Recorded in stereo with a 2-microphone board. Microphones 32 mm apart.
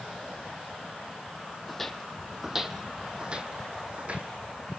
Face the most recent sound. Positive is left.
turn(degrees=-45)  # may be behind; listen again after turning